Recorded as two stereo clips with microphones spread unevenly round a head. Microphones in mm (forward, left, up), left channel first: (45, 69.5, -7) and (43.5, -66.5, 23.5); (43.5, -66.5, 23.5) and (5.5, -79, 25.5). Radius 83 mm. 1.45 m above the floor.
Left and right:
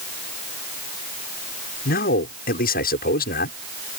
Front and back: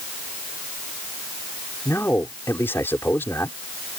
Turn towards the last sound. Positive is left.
turn(degrees=80)